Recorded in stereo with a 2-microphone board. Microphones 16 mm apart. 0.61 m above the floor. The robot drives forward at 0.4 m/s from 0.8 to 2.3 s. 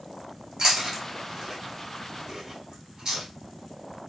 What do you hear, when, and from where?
0.6 s chewing: 45° right (ahead or behind), 1.3 m